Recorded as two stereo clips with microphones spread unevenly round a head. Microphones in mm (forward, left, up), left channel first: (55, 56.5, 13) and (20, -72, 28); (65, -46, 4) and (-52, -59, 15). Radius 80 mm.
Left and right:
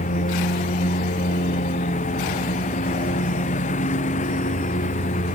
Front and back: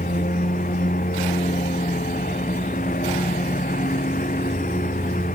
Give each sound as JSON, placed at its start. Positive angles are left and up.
{"t": 0.0, "sound": "a lawn mower", "azimuth_deg": 50}